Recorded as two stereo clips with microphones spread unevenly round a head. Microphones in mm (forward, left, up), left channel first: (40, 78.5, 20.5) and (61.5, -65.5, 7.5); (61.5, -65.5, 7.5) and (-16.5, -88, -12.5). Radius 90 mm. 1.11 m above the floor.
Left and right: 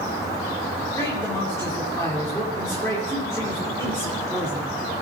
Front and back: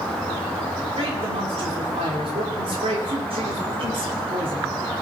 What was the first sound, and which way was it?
A man speaking, 175° left.